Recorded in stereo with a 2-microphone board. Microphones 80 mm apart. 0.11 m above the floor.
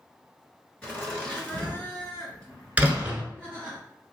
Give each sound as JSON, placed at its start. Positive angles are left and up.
{"t": 0.8, "sound": "laughter", "side_deg": 20, "distance_m": 1.6}
{"t": 2.8, "sound": "a door slam", "side_deg": -15, "distance_m": 1.2}